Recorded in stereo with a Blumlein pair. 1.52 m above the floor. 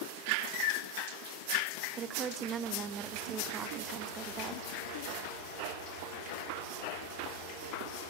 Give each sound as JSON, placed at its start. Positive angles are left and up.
{"t": 2.0, "sound": "a woman speaking", "azimuth_deg": -25, "distance_m": 0.6}